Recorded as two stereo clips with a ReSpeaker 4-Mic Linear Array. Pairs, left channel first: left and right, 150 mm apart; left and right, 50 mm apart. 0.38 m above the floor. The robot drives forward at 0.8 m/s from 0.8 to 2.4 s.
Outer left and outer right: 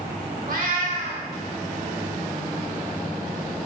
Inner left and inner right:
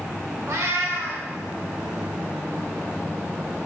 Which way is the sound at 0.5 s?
65° right (ahead or behind).